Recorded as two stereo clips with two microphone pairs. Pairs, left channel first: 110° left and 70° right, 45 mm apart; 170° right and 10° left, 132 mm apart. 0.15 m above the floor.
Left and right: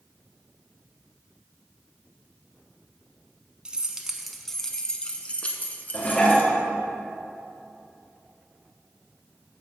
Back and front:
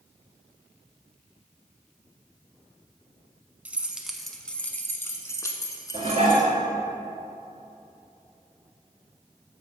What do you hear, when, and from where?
3.6 s keys jangling: 45° right, 0.8 m; by 6.5 s 140° left, 1.4 m
5.9 s dishes clattering: 45° left, 1.7 m